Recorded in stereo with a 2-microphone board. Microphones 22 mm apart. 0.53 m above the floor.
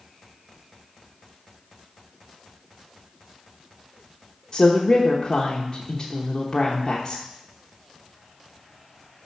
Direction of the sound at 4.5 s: 25° left (ahead or behind).